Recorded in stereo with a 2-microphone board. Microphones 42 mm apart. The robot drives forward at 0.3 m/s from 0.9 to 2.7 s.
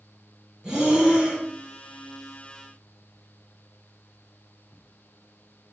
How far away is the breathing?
About 1.5 m.